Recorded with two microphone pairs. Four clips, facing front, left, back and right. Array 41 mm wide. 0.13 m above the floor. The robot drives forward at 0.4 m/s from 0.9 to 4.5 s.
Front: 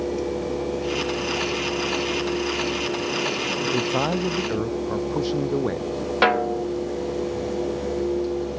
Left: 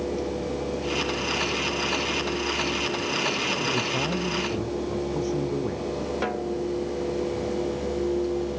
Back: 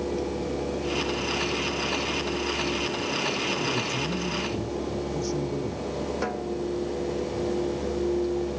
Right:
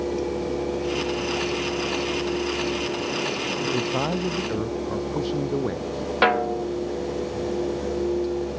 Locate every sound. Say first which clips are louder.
3.7 s a man speaking: right 2 dB, front 6 dB; 25° right
6.2 s a snare drum: right 11 dB, front 9 dB; 45° right